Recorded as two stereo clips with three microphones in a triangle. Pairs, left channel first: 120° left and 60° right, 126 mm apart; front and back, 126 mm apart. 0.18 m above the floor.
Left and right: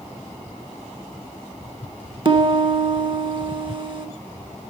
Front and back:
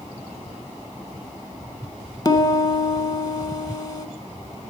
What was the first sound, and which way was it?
A piano, 40° right.